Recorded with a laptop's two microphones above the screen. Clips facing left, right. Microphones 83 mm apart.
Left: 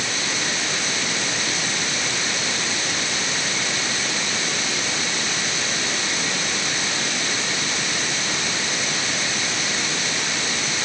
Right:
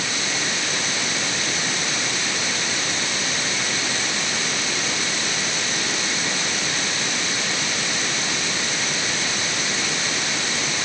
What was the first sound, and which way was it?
Only background noise.